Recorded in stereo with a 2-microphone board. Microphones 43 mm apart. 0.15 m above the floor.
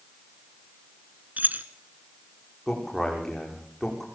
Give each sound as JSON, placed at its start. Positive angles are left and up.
{"t": 1.4, "sound": "keys jangling", "side_deg": -45, "distance_m": 1.4}
{"t": 2.7, "sound": "a man speaking", "side_deg": 5, "distance_m": 7.5}